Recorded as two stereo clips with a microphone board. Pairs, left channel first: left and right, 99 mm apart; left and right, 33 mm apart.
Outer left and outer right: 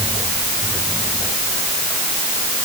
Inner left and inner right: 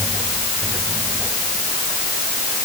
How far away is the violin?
I don't hear a violin.